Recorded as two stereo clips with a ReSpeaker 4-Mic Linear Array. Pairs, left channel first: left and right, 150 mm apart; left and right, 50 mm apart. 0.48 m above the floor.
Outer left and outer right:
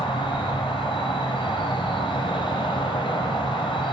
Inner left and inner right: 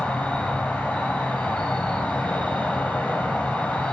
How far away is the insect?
About 1.3 m.